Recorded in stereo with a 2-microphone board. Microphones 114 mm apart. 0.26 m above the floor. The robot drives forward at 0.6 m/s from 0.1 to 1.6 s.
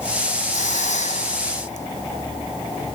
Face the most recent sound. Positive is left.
turn(degrees=85)